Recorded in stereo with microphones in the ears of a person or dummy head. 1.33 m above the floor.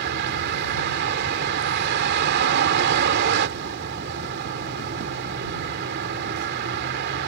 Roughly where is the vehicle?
Right.